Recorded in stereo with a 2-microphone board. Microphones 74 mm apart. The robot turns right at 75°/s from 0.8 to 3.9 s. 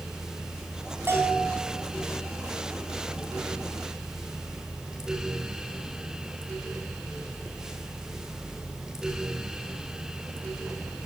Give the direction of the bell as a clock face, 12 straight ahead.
5 o'clock.